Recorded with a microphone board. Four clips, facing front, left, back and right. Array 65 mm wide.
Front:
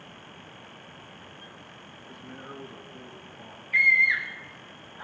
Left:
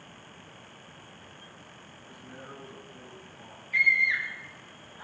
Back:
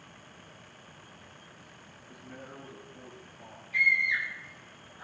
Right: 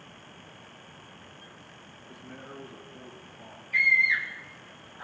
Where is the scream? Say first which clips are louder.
Right 1 dB, front 5 dB; straight ahead, 5 m.